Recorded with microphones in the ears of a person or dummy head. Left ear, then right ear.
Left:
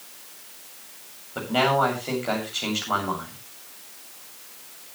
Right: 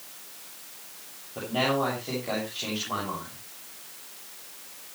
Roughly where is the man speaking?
Left.